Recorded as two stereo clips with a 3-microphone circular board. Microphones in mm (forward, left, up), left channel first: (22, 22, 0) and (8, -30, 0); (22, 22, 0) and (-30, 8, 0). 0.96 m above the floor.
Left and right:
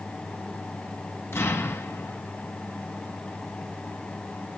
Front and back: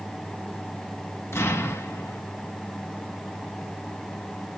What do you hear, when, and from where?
1.3 s an explosion: 45° left, 1.4 m